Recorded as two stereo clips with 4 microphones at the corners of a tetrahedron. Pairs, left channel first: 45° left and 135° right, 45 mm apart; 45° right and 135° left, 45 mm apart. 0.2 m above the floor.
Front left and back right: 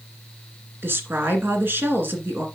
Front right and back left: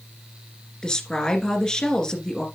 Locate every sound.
0.8 s a woman speaking: 115° right, 2 m